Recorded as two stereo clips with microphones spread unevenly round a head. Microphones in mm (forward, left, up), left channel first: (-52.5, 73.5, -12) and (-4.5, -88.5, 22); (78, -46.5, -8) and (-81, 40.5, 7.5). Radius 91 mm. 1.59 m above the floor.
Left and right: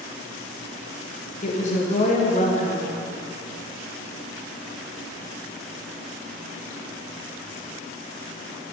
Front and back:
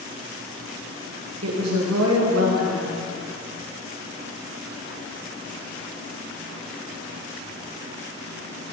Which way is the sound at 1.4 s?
155° left.